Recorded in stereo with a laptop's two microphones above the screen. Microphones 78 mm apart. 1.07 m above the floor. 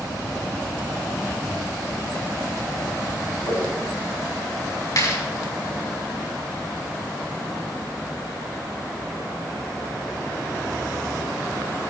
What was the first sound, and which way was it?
A whoosh, 65° left (ahead or behind).